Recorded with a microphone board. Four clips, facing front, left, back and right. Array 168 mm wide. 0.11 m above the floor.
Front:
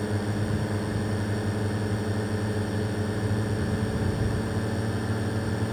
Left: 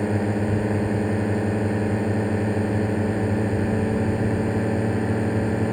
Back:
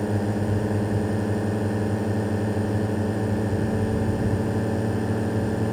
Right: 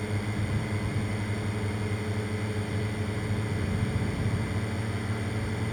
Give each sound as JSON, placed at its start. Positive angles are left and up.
{"t": 0.0, "sound": "a drone", "azimuth_deg": 110}